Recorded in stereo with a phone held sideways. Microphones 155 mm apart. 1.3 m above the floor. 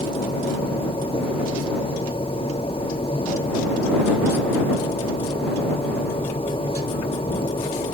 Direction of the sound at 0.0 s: 40° left (ahead or behind).